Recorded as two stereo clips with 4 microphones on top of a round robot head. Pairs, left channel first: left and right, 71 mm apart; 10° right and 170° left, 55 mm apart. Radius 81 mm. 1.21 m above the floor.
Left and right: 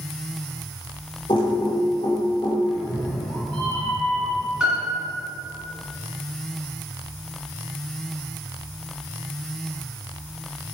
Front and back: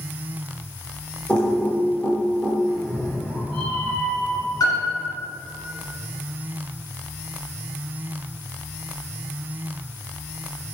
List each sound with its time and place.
1.3 s typing on a keyboard: 60° left, 1.3 m
2.6 s a cat meowing: 95° right, 2 m
4.6 s a piano: 10° right, 1.9 m